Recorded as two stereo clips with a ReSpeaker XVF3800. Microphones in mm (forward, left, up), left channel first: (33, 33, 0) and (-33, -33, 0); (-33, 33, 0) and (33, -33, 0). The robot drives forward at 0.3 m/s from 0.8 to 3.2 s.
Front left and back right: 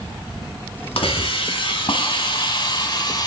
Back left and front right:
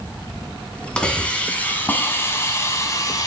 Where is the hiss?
55° left, 1.4 m; by 3.3 s 85° left, 1.2 m.